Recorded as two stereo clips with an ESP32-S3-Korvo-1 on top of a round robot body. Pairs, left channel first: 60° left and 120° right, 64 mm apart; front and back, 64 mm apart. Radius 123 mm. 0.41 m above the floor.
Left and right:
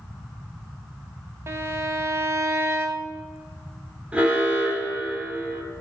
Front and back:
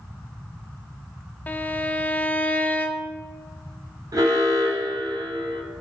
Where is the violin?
70° right, 0.6 m.